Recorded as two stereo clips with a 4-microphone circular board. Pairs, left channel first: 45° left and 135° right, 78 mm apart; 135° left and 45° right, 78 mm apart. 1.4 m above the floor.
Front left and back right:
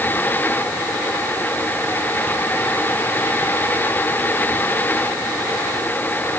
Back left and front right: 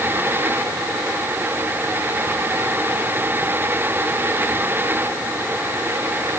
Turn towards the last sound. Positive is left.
No sound to turn to.